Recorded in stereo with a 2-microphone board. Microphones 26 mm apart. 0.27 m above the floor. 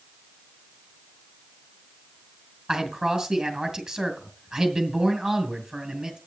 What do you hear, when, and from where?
2.7 s a man speaking: 15° right (ahead or behind), 3.5 m